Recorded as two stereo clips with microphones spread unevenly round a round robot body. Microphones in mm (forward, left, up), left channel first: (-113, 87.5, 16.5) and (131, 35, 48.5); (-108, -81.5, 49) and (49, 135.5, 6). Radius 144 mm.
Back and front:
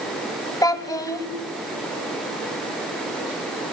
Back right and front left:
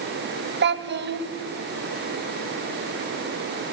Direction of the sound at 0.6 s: 95° left.